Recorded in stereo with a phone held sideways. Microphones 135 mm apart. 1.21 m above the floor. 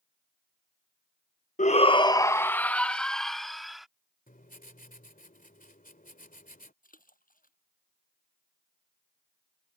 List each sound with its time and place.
1.6 s a shout: 60° left (ahead or behind); by 3.9 s centre (ahead or behind)
4.3 s writing: 80° left
6.8 s a splash: 75° left (ahead or behind)